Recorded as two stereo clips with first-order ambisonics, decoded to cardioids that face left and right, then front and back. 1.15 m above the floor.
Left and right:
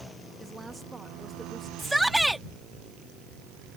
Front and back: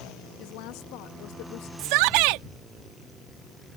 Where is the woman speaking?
15° right.